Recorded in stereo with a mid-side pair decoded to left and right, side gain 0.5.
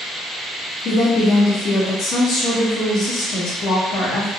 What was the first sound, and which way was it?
A woman speaking, 65° left.